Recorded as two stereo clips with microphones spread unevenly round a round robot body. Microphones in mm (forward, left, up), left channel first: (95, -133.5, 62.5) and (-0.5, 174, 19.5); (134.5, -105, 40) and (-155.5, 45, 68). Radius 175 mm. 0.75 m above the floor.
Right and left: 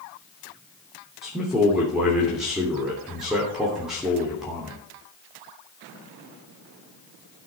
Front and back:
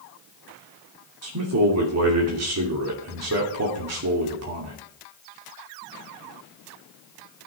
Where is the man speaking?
165° right, 3 m.